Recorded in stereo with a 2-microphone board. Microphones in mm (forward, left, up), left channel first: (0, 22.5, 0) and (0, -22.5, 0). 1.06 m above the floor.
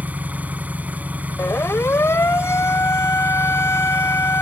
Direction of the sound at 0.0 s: 35° right (ahead or behind).